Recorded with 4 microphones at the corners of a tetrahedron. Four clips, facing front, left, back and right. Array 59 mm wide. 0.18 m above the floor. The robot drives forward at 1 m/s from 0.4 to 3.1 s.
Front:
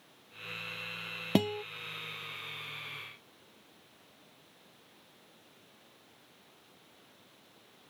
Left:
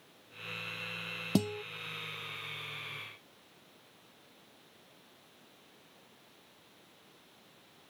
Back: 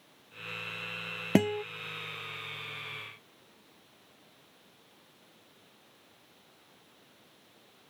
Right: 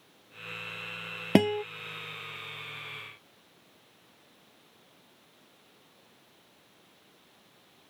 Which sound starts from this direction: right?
A guitar, at 1.4 s.